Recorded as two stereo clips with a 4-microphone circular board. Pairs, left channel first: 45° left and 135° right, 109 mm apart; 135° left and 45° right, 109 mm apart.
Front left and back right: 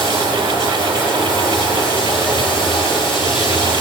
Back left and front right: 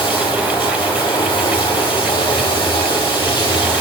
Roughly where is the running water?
Left.